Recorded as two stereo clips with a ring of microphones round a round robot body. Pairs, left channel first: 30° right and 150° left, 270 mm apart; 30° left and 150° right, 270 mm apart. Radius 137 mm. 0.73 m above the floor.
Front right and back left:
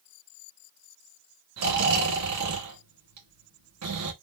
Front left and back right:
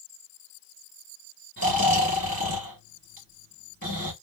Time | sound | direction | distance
1.6 | snoring | 150° left | 1.5 m